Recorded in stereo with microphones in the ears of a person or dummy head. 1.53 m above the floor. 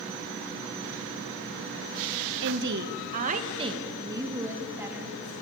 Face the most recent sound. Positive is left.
turn(degrees=-5)  # may be behind; listen again after turning